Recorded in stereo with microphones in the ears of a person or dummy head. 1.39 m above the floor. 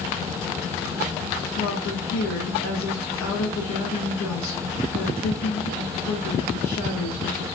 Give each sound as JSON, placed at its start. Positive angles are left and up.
{"t": 1.6, "sound": "a woman speaking", "side_deg": 65, "distance_m": 0.8}